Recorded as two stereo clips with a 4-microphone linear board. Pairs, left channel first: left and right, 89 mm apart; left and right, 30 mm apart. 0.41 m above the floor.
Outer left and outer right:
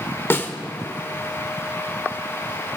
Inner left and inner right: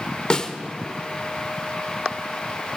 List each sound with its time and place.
0.3 s a snare drum: 25° left (ahead or behind), 1.0 m